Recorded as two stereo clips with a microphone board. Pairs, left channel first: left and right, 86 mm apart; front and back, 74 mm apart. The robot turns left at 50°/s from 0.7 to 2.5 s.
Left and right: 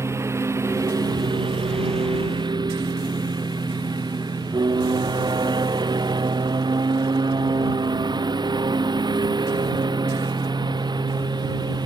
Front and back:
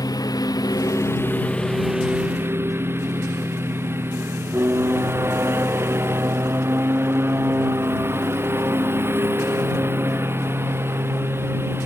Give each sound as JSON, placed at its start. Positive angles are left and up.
{"t": 0.0, "sound": "a lawn mower", "azimuth_deg": -30}